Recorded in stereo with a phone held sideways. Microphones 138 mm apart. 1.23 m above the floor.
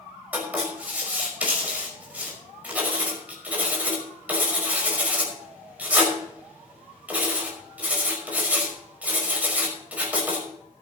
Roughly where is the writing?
Centre.